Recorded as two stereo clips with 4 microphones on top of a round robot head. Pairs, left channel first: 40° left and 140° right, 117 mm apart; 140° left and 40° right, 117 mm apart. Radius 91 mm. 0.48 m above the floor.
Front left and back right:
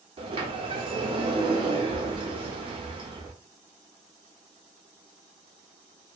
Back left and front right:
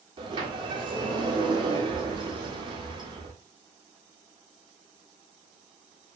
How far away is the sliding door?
About 0.7 m.